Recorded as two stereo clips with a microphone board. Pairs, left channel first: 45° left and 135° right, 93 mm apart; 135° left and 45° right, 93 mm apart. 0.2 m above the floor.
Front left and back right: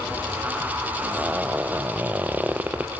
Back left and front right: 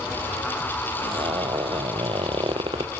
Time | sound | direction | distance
1.0 | a zipper | 65° right | 1.4 m